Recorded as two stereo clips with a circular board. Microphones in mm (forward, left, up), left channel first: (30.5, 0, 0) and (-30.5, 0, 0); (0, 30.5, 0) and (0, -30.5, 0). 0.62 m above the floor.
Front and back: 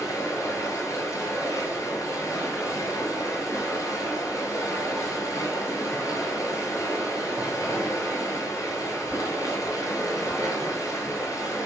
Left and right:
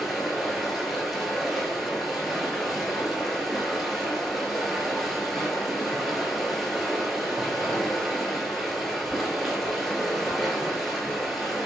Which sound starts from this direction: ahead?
Running water, at 0.0 s.